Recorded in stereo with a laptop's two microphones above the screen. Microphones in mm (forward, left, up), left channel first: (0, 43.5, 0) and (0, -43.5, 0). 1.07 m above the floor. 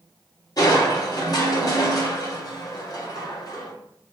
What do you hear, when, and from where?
0.6 s crushing: 45° left (ahead or behind), 1.8 m